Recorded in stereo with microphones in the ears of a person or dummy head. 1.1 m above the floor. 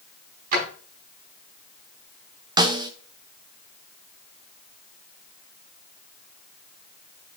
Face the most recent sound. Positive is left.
turn(degrees=-20)  # may be behind; listen again after turning